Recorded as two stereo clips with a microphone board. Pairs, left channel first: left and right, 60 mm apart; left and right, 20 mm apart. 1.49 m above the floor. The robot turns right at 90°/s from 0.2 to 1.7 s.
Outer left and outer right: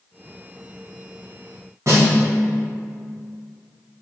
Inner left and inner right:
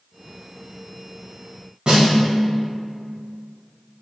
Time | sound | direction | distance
1.9 | a snare drum | 55° right (ahead or behind) | 2.0 m